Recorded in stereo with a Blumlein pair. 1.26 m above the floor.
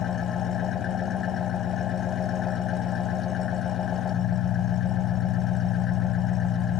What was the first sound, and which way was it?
An engine running, 20° left.